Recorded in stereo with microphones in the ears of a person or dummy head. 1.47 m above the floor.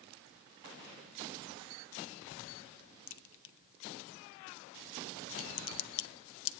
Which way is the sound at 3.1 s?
65° left (ahead or behind).